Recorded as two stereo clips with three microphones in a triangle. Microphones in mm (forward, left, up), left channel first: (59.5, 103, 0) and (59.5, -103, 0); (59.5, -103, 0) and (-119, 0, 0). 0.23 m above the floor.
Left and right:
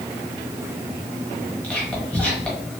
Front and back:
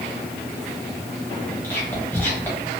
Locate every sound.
1.6 s whispering: 20° left, 1.2 m